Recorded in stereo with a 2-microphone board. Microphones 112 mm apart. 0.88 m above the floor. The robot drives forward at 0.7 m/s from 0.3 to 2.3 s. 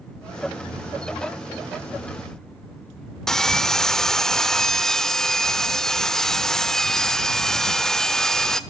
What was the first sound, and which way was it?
Sawing, 5° left (ahead or behind).